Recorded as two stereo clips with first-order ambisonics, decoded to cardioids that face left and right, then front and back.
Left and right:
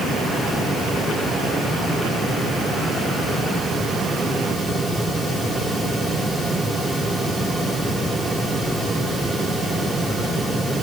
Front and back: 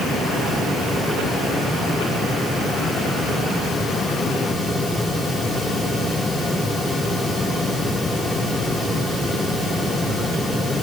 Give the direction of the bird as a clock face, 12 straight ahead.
I don't hear a bird.